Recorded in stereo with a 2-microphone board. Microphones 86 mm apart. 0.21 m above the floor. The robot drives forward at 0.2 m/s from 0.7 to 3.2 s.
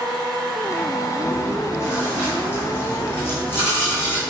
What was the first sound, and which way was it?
Chewing, 35° left (ahead or behind).